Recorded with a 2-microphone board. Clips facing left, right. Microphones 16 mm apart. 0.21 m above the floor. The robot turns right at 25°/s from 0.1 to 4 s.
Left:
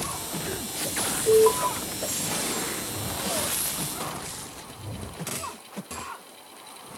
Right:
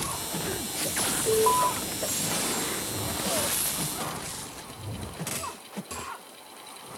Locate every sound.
1.3 s an alarm: centre (ahead or behind), 1.9 m; by 1.7 s 5° left (ahead or behind), 1.9 m